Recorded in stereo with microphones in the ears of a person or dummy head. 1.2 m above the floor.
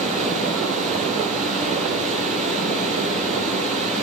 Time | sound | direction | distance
0.0 | running water | 40° right (ahead or behind) | 10 m